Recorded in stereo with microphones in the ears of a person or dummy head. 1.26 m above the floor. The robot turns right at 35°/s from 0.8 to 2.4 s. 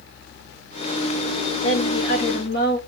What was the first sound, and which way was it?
A woman speaking, 65° left (ahead or behind).